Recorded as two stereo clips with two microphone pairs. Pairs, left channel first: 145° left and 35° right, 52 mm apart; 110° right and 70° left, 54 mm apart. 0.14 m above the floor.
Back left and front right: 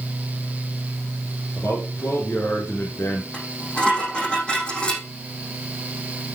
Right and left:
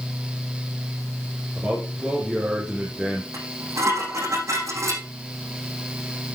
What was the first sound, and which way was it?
A man speaking, 135° left.